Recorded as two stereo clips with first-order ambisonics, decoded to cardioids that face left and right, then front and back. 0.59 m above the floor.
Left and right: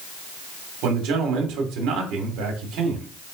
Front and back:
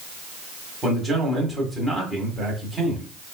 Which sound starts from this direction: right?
A man speaking, at 0.8 s.